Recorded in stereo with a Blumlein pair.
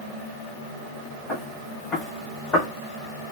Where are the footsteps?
15° left, 4 m; by 2.7 s 30° left, 3.5 m.